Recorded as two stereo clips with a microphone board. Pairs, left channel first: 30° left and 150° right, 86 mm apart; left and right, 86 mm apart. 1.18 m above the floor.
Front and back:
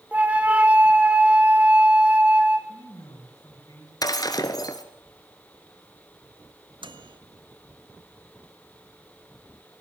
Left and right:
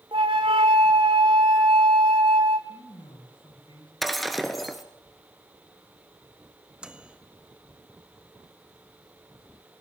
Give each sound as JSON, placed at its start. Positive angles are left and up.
{"t": 0.1, "sound": "a flute", "azimuth_deg": -75, "distance_m": 2.0}
{"t": 2.7, "sound": "a man speaking", "azimuth_deg": 85, "distance_m": 6.5}
{"t": 4.0, "sound": "breaking glass", "azimuth_deg": 0, "distance_m": 1.9}
{"t": 6.8, "sound": "a microwave", "azimuth_deg": -170, "distance_m": 1.4}